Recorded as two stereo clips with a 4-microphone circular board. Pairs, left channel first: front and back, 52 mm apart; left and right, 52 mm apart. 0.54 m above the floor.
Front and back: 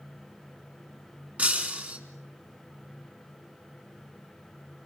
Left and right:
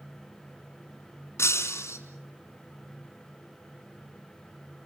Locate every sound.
1.4 s breaking glass: 120° left, 4 m